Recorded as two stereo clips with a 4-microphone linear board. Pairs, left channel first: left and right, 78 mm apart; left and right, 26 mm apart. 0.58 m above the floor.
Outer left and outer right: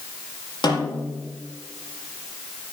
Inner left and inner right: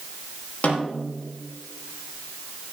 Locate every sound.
0.6 s a snare drum: 70° left (ahead or behind), 5.5 m